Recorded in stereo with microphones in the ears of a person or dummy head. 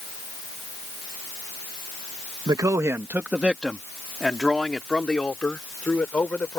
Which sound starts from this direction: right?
A man speaking, at 2.5 s.